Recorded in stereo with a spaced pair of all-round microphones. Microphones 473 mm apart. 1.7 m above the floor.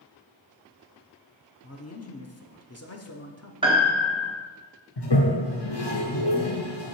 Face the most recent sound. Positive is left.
turn(degrees=55)  # may be behind; listen again after turning